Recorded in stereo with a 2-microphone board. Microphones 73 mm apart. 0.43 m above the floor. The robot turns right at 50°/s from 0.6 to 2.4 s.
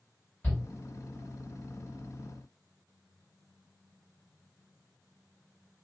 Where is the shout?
25° left (ahead or behind), 1.9 m.